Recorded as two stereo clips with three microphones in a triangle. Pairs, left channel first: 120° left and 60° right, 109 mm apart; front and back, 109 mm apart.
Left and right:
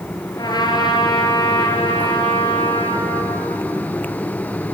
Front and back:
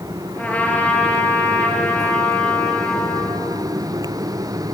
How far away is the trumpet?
About 3 m.